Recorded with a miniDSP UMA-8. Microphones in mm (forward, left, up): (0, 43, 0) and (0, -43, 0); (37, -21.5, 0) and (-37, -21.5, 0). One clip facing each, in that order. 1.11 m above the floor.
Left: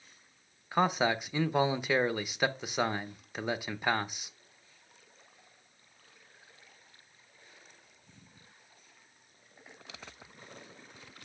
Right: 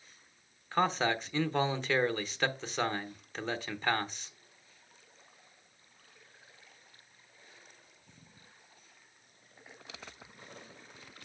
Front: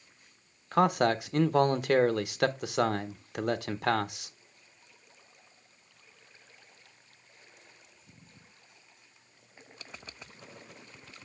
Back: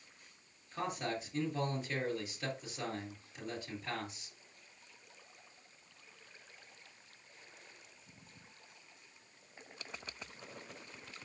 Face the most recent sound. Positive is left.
turn(degrees=10)